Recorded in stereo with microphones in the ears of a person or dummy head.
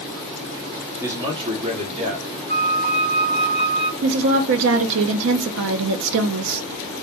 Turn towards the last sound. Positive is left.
turn(degrees=-65)  # may be behind; listen again after turning